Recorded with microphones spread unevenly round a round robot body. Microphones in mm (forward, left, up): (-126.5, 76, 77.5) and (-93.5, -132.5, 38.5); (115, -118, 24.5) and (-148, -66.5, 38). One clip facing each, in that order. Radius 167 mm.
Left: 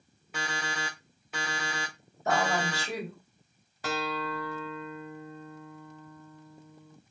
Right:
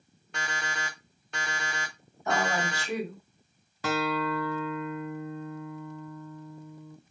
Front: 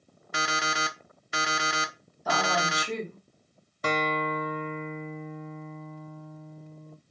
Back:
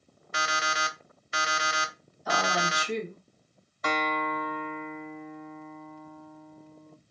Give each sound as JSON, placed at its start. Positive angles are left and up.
{"t": 0.3, "sound": "an alarm clock", "azimuth_deg": 10, "distance_m": 0.6}
{"t": 2.2, "sound": "a woman speaking", "azimuth_deg": 35, "distance_m": 3.5}
{"t": 3.8, "sound": "a guitar", "azimuth_deg": -70, "distance_m": 0.7}